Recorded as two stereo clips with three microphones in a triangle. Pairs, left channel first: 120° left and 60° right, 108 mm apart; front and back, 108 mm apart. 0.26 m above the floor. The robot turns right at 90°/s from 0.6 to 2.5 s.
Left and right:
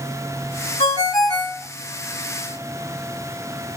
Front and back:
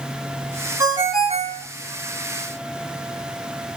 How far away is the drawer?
I don't hear a drawer.